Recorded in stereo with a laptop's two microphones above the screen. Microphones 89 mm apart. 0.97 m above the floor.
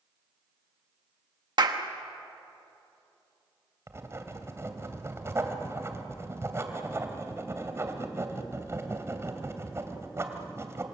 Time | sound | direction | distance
1.6 | a clap | 55° right (ahead or behind) | 1.3 m
3.9 | writing | 30° right (ahead or behind) | 2.5 m